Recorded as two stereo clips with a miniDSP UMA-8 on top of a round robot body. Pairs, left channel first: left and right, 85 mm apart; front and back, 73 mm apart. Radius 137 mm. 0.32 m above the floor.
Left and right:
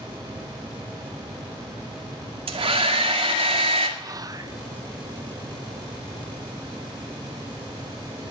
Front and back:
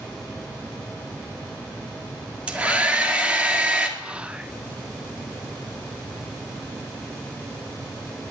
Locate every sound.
2.5 s a hair dryer: 105° right, 1.9 m
4.0 s whispering: 110° right, 1.1 m